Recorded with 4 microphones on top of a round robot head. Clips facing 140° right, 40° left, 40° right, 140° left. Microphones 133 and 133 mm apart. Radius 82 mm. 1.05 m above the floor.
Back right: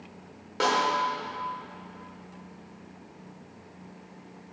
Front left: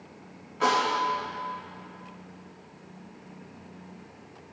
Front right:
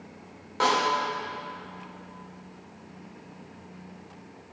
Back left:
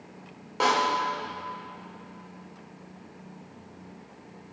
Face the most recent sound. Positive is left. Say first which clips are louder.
# front left 1 dB, even
turn(degrees=-145)